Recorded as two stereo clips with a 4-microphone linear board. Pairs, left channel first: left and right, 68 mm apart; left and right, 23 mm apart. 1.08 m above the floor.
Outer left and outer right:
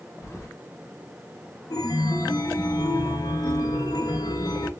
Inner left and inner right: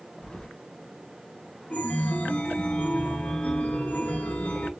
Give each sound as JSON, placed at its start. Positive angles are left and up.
{"t": 0.2, "sound": "keys jangling", "side_deg": 40, "distance_m": 1.4}
{"t": 1.7, "sound": "a chime", "side_deg": 70, "distance_m": 0.9}